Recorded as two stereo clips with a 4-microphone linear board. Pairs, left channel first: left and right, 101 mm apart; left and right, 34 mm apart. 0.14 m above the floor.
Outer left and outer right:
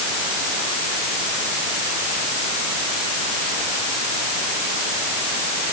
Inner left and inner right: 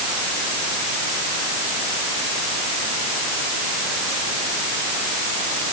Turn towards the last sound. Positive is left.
No sound to turn to.